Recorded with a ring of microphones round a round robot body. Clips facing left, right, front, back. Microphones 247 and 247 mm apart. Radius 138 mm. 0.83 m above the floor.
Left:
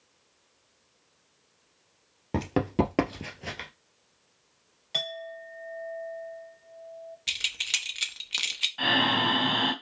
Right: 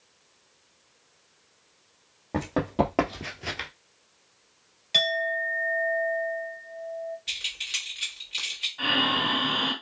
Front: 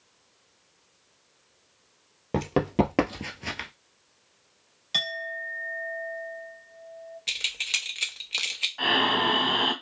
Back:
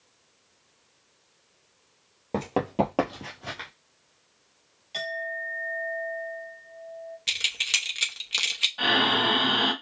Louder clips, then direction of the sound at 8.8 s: Left 1 dB, back 1 dB; 135° left.